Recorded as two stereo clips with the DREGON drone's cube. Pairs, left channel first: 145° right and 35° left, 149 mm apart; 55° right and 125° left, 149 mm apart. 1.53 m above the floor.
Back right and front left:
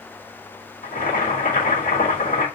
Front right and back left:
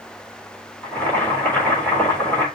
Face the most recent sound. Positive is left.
turn(degrees=-135)